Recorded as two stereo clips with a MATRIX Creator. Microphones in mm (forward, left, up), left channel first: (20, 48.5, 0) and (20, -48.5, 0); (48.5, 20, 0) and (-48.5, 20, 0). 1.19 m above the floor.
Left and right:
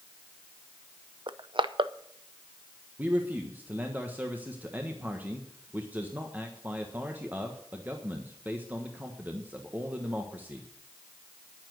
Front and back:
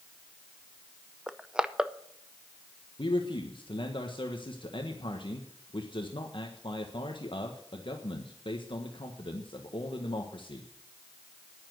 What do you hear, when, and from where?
1.3 s crushing: 100° right, 0.6 m
3.0 s a man speaking: 20° right, 1.4 m